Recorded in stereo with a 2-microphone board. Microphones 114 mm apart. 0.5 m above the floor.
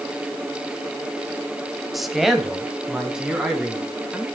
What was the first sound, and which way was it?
A man speaking, centre (ahead or behind).